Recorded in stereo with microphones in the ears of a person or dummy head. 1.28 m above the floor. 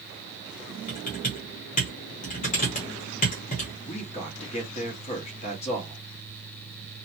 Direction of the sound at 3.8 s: 40° left (ahead or behind).